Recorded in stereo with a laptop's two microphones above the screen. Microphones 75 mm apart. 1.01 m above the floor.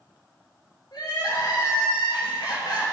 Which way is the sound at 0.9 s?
70° left (ahead or behind).